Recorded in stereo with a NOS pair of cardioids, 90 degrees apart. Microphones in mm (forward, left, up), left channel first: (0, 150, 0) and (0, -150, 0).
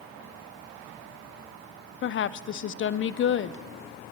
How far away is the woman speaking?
About 0.6 m.